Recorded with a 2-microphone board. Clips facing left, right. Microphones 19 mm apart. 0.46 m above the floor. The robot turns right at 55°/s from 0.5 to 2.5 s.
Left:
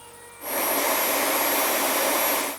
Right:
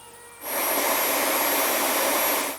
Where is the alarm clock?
No alarm clock in this recording.